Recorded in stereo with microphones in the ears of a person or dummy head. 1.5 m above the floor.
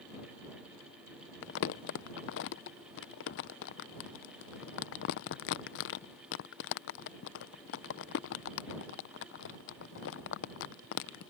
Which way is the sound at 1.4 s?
65° left (ahead or behind).